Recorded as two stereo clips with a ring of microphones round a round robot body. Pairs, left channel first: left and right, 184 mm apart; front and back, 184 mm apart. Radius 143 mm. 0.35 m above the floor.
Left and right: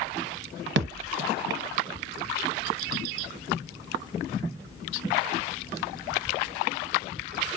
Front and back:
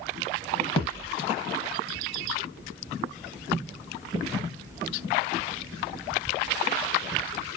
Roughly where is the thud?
Ahead right.